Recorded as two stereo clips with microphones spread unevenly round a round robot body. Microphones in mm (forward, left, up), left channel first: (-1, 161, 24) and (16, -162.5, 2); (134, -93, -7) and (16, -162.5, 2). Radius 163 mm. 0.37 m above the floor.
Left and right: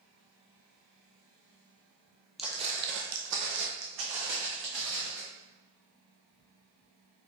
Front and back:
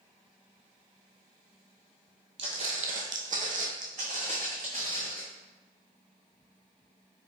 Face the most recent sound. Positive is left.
turn(degrees=-115)